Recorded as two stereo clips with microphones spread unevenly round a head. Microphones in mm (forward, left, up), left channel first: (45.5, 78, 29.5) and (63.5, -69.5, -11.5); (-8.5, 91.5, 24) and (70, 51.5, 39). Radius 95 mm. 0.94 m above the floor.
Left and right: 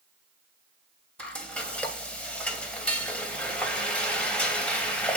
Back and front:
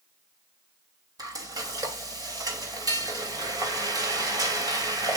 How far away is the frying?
About 3 m.